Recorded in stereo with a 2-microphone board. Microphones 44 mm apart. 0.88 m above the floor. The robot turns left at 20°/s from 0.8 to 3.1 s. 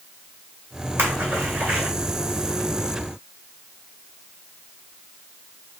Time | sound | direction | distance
1.0 | a splash | 75° right (ahead or behind) | 2 m